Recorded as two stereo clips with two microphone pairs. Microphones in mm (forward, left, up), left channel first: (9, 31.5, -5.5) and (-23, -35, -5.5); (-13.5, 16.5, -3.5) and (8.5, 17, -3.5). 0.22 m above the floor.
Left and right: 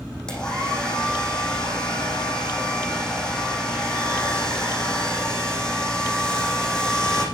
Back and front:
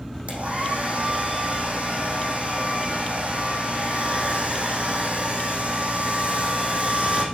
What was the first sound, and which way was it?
A hair dryer, 15° right.